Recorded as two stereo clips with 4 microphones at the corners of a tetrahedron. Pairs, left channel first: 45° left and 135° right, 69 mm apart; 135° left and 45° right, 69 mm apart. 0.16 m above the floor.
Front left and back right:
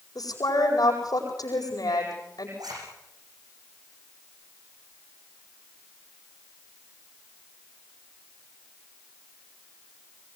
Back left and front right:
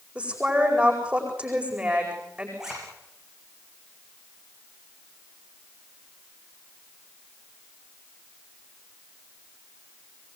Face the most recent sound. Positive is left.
turn(degrees=-125)